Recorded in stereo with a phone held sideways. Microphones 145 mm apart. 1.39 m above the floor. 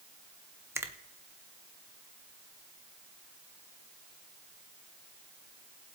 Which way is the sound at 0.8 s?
15° right (ahead or behind).